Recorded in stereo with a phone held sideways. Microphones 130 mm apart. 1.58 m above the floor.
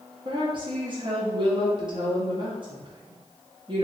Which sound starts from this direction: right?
A woman speaking, at 0.2 s.